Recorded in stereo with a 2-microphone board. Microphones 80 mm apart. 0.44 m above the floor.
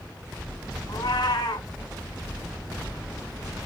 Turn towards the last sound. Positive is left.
turn(degrees=80)